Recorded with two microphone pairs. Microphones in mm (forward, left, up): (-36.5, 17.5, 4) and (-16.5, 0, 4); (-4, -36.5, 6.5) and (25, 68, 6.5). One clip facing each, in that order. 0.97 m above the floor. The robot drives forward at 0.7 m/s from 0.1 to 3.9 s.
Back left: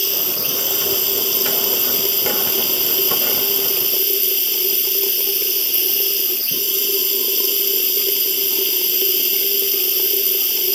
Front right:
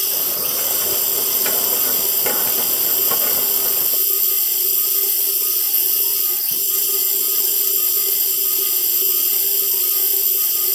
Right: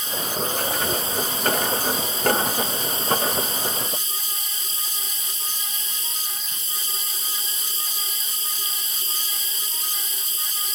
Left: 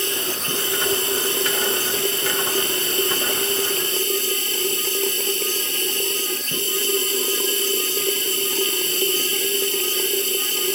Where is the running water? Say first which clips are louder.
Back left 3 dB, even; 75° left; by 10.8 s 85° left.